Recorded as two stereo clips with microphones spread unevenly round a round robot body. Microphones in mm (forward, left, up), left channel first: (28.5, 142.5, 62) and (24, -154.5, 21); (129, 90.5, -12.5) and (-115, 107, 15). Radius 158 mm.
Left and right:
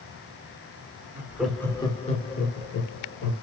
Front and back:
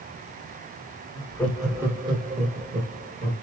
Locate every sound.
1.1 s laughter: 35° right, 1.2 m; by 3.3 s 135° left, 1.7 m